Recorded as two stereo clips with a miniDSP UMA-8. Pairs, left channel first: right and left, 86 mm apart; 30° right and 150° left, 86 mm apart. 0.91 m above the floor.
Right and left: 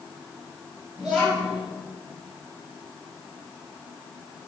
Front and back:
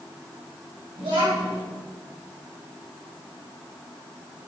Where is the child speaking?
175° left, 3 m.